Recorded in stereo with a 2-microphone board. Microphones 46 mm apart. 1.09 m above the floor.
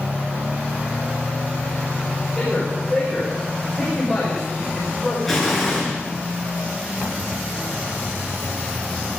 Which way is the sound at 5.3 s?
10° left (ahead or behind).